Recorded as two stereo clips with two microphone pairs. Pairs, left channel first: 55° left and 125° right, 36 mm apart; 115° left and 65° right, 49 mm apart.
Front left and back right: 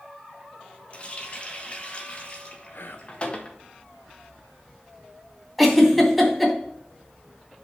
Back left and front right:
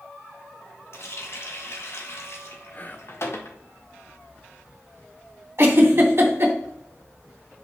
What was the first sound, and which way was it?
A running tap, 105° left.